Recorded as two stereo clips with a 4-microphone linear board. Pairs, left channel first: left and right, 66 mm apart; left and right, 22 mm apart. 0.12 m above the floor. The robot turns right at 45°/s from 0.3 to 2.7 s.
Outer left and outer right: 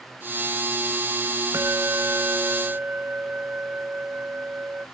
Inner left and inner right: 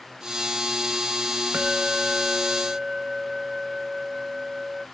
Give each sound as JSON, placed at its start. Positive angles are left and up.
{"t": 1.5, "sound": "a bell", "azimuth_deg": -90}